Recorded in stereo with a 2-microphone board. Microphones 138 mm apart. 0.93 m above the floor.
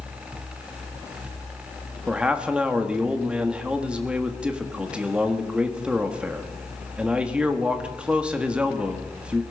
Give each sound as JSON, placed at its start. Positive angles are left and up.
{"t": 2.1, "sound": "a man speaking", "side_deg": -10, "distance_m": 1.5}